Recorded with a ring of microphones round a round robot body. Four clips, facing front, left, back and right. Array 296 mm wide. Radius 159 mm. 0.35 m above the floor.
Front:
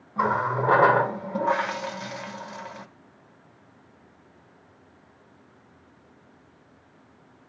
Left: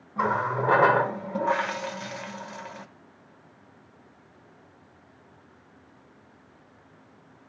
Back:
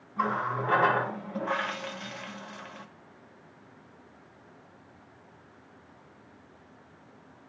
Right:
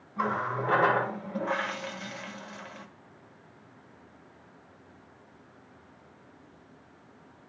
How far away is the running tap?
About 1.0 m.